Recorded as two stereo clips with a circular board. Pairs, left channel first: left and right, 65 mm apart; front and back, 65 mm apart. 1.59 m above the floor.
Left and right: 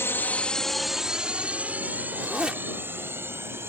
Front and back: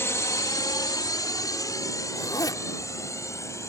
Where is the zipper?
15° right.